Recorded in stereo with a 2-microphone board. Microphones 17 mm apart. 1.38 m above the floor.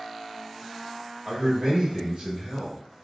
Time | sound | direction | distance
1.2 | a man speaking | 60° right (ahead or behind) | 1.0 m